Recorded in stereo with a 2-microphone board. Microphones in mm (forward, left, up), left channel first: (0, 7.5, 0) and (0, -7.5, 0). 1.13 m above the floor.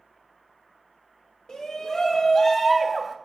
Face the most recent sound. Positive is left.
turn(degrees=-10)  # may be behind; listen again after turning